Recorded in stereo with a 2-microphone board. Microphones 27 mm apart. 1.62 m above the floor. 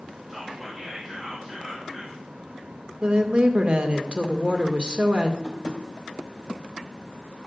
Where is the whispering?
5° right (ahead or behind), 4 m.